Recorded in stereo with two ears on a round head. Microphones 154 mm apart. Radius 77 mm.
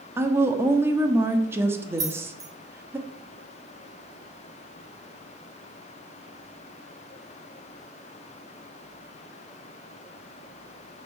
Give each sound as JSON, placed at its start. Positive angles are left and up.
{"t": 0.2, "sound": "a woman speaking", "side_deg": -15, "distance_m": 1.3}
{"t": 2.0, "sound": "keys jangling", "side_deg": -20, "distance_m": 1.8}